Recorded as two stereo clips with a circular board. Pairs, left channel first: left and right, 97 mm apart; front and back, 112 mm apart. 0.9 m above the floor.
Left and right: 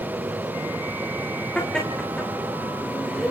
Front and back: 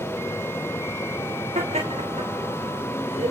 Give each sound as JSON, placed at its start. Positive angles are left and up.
{"t": 1.6, "sound": "laughter", "azimuth_deg": 170, "distance_m": 2.5}